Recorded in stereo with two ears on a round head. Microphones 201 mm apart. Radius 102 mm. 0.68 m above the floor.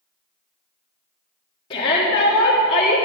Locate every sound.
1.7 s a shout: 25° left (ahead or behind), 1.4 m